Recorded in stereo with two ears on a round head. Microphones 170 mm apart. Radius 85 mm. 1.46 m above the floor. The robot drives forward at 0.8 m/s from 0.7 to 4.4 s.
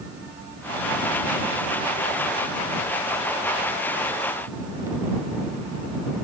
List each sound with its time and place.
Only background noise.